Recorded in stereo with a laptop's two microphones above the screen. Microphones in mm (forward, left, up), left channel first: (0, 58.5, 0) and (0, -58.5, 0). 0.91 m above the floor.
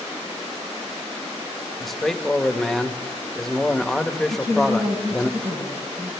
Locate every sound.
1.8 s a man speaking: centre (ahead or behind), 1.1 m
4.3 s a woman speaking: 75° right (ahead or behind), 5 m